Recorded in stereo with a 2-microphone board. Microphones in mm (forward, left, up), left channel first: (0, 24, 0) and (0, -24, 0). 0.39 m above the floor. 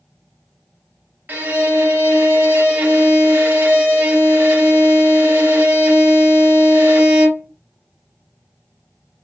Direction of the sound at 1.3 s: 40° right (ahead or behind).